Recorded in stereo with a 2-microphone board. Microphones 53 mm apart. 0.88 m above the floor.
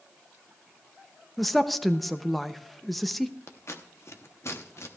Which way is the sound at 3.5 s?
60° left (ahead or behind).